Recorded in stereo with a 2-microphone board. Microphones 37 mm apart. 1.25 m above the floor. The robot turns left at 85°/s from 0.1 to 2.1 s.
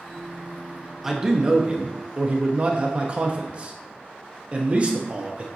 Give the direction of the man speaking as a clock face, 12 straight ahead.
12 o'clock.